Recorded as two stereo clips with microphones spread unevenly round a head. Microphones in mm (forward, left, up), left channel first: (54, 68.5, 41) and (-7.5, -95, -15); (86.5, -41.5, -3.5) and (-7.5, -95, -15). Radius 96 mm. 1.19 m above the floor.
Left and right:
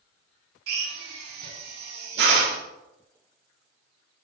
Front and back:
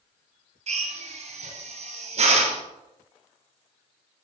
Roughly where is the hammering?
I don't hear hammering.